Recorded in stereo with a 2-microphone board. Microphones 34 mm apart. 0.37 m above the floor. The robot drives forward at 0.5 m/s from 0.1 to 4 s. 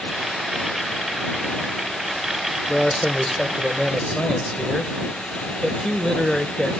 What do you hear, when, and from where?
2.7 s a man speaking: 15° left (ahead or behind), 1.0 m